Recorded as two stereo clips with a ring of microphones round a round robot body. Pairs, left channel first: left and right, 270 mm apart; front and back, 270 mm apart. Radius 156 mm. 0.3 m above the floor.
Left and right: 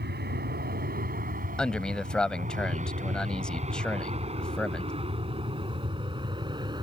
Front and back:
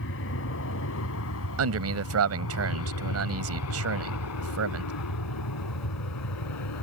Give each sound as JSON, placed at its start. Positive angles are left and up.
{"t": 0.0, "sound": "an aircraft", "azimuth_deg": -40}
{"t": 1.6, "sound": "a man speaking", "azimuth_deg": 175}